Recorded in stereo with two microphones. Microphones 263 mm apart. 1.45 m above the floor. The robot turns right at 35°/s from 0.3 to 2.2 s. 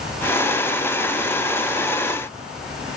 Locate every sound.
Only background noise.